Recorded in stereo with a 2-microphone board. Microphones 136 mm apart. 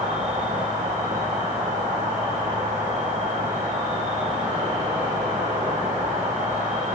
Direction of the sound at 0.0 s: 65° right (ahead or behind).